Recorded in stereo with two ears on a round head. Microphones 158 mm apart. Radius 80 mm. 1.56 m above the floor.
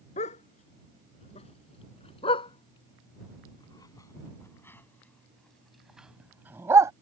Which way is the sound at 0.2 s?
35° left (ahead or behind).